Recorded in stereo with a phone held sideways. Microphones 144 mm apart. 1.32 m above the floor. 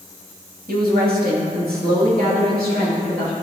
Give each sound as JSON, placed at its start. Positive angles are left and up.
{"t": 0.7, "sound": "a woman speaking", "side_deg": -70, "distance_m": 2.0}